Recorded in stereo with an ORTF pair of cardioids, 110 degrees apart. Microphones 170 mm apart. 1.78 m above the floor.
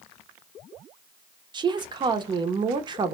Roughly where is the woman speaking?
Ahead right.